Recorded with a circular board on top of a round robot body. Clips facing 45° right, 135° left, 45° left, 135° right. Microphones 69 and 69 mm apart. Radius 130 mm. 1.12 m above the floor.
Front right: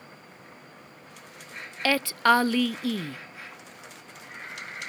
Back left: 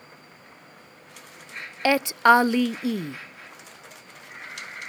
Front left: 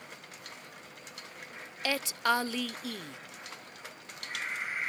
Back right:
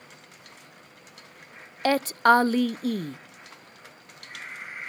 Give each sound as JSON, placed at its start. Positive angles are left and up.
{"t": 1.9, "sound": "a woman speaking", "azimuth_deg": -160}